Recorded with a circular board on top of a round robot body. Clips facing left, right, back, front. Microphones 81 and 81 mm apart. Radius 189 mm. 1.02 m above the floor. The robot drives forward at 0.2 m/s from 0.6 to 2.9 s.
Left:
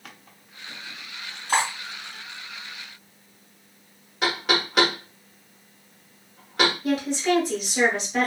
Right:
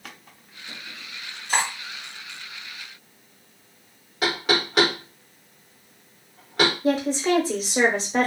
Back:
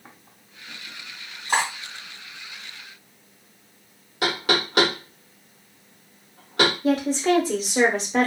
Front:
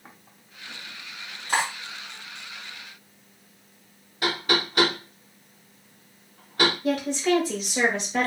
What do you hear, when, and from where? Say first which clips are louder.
1.5 s cutlery clinking: left 2 dB, back 2 dB; 120° left, 2 m
4.2 s knocking: right 1 dB, back 2 dB; straight behind, 1.2 m
6.8 s a woman speaking: right 2 dB, back 3 dB; 135° right, 1.0 m